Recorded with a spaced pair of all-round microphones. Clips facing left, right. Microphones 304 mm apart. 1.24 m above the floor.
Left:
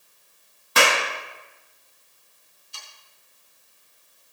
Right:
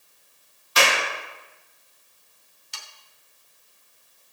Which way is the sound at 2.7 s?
85° right.